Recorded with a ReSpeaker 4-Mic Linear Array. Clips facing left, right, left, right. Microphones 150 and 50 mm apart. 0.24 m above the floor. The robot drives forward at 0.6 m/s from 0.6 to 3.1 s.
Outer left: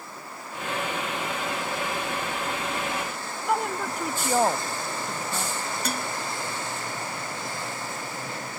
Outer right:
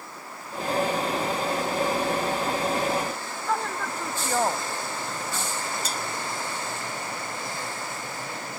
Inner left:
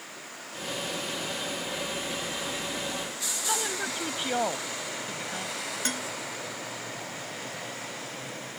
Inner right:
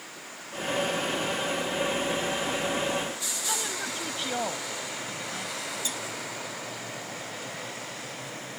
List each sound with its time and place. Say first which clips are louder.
3.5 s a woman speaking: outer left 2 dB, inner left 3 dB; 15° left (ahead or behind)
5.8 s dishes clattering: outer left 2 dB, inner left 2 dB; 60° left (ahead or behind)